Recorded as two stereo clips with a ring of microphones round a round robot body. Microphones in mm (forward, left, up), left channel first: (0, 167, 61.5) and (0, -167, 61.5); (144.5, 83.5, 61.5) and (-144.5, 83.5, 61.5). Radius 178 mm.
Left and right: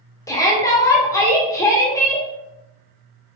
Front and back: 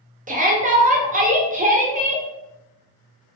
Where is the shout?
160° left, 1.0 m.